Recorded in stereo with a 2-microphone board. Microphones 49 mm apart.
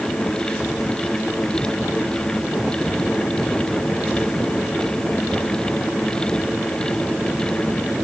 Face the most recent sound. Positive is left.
No sound to turn to.